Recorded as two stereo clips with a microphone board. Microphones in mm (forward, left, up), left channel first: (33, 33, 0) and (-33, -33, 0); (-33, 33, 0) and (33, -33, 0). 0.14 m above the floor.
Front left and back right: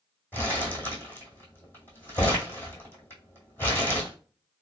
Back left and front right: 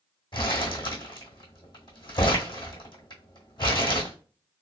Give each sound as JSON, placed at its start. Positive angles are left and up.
{"t": 0.3, "sound": "crumpling", "azimuth_deg": 110, "distance_m": 1.8}